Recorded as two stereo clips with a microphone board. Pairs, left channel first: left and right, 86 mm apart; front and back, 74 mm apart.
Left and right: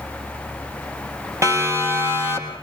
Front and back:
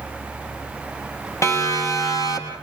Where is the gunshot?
I don't hear a gunshot.